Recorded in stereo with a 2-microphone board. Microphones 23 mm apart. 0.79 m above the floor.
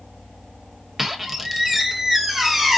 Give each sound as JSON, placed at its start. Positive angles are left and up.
{"t": 1.0, "sound": "a squeak", "side_deg": -15, "distance_m": 0.9}